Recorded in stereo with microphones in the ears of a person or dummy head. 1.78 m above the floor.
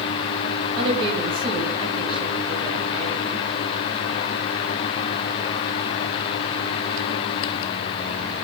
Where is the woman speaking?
30° right (ahead or behind), 9.5 m.